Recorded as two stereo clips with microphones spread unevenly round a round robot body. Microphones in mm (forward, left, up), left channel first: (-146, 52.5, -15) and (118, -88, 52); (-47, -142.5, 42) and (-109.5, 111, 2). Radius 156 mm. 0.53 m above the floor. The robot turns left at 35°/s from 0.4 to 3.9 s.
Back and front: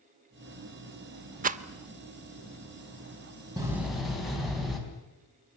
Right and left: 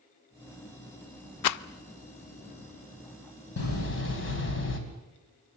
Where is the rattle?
95° right, 0.6 m; by 1.6 s 100° right, 0.6 m.